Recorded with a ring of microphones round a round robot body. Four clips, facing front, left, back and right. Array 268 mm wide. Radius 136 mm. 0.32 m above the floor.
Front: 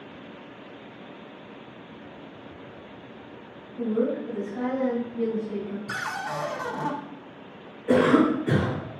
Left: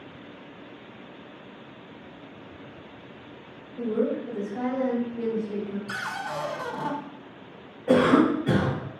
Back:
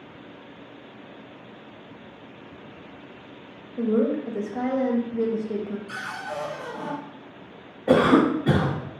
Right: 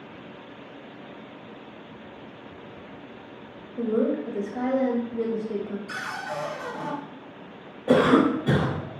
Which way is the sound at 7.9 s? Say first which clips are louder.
Right 1 dB, back 1 dB; 175° right.